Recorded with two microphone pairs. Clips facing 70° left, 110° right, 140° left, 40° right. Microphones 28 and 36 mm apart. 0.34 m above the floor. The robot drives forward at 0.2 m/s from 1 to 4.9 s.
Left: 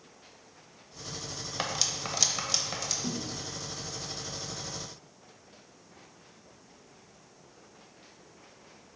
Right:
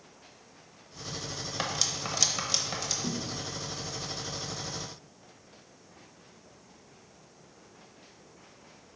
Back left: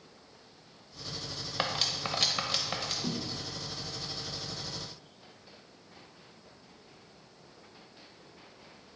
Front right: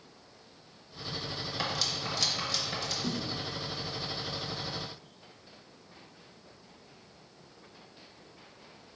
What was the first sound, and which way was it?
Cutlery clinking, 155° left.